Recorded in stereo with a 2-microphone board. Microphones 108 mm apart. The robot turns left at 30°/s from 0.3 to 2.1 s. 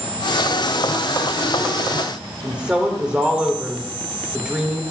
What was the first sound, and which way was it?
A woman speaking, 10° right (ahead or behind).